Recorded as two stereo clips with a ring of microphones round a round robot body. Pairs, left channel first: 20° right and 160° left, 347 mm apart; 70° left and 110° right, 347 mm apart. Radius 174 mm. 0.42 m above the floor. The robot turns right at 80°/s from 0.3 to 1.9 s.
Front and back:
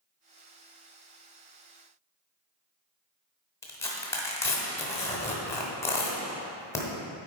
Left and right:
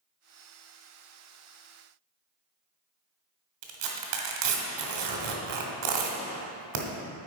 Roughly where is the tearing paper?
Right.